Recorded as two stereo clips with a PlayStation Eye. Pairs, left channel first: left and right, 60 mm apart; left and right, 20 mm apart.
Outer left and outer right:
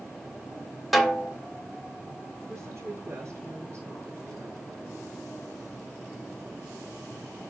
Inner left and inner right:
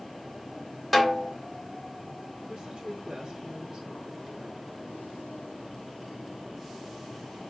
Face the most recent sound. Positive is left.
turn(degrees=-50)  # may be behind; listen again after turning